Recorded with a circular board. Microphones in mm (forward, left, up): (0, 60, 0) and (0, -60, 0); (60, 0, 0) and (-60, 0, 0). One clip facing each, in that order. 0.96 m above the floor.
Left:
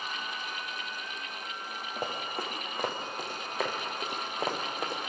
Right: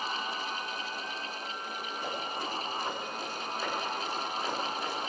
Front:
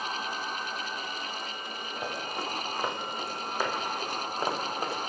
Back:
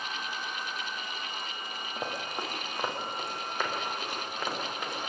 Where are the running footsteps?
110° left, 5.5 m; by 5.1 s 50° left, 4 m.